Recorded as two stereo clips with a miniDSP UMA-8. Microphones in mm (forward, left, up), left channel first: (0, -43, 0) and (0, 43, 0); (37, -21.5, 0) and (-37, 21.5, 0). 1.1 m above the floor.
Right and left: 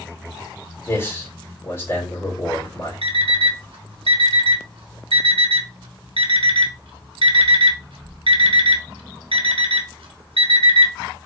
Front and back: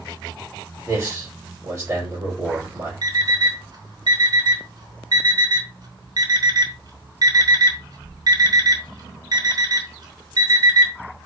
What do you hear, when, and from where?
0.9 s a man speaking: 155° right, 3 m
3.0 s an alarm clock: 110° left, 1.1 m